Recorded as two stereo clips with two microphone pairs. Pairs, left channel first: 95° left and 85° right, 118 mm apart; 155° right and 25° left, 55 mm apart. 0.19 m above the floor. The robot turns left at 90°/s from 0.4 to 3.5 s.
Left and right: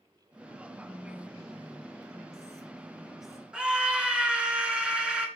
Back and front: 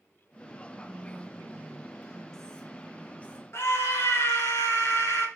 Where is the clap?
I don't hear a clap.